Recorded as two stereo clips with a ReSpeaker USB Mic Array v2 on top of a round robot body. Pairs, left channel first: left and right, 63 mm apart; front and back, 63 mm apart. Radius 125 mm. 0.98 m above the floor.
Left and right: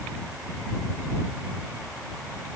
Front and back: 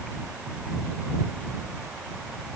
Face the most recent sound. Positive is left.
No sound to turn to.